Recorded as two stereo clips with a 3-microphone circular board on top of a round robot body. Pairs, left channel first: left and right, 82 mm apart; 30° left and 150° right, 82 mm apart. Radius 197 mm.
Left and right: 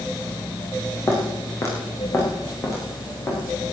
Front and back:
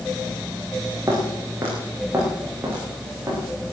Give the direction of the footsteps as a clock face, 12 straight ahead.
7 o'clock.